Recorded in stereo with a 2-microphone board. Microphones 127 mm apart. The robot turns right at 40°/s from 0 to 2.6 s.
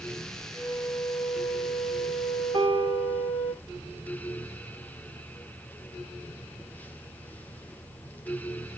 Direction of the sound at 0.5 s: 35° left.